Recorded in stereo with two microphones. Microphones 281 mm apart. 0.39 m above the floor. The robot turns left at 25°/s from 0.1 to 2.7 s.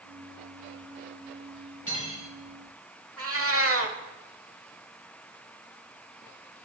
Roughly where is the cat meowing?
Right.